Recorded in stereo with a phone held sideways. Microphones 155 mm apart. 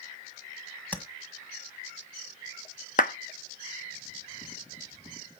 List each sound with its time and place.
0.9 s tapping: 10° left (ahead or behind), 1.6 m
3.0 s a clap: 60° left (ahead or behind), 1.1 m